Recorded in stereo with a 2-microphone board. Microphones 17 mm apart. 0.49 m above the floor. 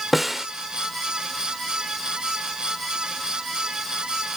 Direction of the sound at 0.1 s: 15° right (ahead or behind).